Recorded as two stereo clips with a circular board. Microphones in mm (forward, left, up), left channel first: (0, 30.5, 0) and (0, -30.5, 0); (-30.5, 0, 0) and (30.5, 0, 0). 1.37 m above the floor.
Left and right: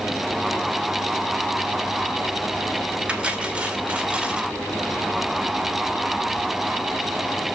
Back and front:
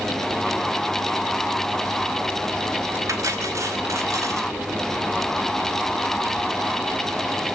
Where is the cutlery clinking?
20° right, 2.5 m.